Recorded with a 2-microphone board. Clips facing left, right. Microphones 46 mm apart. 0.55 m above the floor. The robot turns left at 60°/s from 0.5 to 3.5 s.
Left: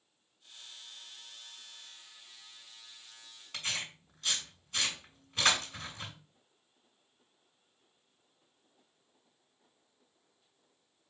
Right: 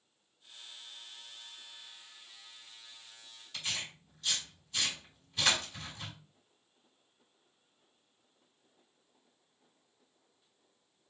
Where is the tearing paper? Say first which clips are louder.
Left 1 dB; 60° left (ahead or behind), 2.0 m.